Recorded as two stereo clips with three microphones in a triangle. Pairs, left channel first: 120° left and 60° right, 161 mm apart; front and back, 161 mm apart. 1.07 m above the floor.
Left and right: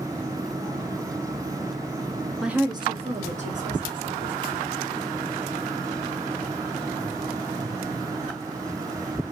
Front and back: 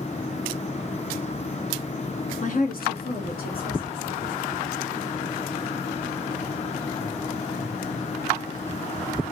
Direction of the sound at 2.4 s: 30° left.